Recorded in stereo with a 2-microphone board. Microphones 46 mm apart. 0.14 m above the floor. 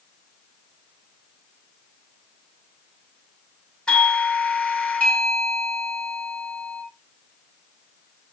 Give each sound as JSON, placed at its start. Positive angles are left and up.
{"t": 3.9, "sound": "a doorbell", "side_deg": 15, "distance_m": 2.5}